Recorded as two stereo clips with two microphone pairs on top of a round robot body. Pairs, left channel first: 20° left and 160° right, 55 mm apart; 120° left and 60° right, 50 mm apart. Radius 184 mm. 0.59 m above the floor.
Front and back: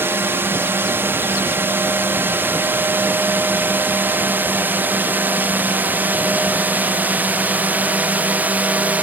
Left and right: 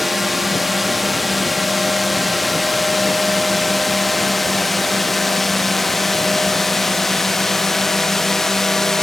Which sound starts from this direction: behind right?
A drone, at 0.0 s.